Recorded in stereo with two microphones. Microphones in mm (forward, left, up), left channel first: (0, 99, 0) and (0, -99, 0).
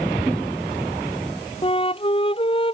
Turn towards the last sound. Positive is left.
turn(degrees=25)  # may be behind; listen again after turning